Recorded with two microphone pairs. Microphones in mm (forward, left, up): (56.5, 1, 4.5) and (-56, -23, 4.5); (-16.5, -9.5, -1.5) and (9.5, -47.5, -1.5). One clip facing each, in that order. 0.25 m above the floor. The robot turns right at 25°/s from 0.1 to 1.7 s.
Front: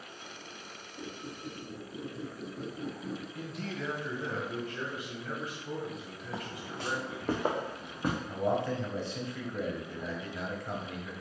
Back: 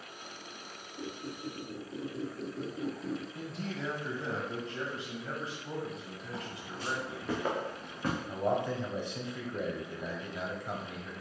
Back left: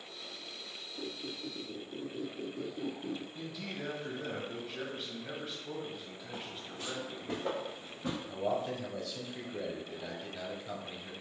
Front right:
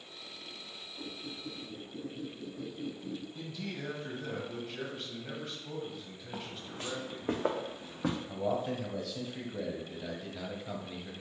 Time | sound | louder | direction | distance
1.0 | a squeak | back 2 dB, back left 2 dB | 110° left | 1.6 m
3.4 | a man speaking | even, front right 1 dB | 160° right | 1.4 m
6.3 | footsteps | front 3 dB, front right 2 dB | 20° left | 1.3 m
8.3 | a man speaking | even, back left 3 dB | 130° right | 0.9 m